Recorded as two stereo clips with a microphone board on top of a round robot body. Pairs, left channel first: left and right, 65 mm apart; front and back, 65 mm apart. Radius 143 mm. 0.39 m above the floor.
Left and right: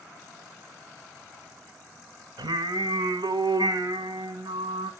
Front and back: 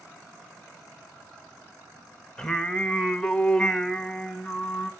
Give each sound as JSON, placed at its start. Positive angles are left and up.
{"t": 2.4, "sound": "singing", "azimuth_deg": -85, "distance_m": 0.9}